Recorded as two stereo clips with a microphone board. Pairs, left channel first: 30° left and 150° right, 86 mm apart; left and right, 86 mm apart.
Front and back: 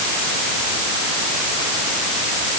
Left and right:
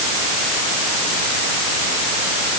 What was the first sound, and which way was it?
Only background noise.